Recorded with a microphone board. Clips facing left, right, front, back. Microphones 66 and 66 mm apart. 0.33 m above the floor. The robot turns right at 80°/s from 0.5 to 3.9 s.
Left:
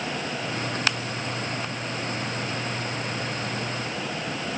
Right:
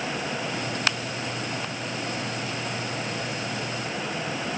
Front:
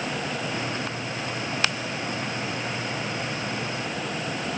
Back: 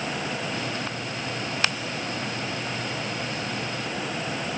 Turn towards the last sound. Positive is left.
No sound to turn to.